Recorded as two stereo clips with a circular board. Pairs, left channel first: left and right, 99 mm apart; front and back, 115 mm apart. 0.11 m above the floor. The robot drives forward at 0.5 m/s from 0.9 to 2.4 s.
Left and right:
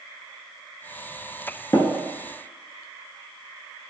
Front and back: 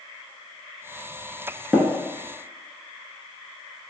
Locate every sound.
1.7 s tapping: 110° left, 0.5 m; by 1.9 s 120° left, 0.5 m